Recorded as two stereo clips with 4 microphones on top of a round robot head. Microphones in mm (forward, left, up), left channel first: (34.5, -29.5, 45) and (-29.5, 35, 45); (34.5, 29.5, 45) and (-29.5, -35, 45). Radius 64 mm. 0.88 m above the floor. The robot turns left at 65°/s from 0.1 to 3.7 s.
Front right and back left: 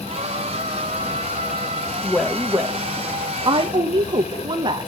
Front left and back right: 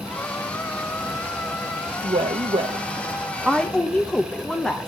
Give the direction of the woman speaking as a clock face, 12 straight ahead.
4 o'clock.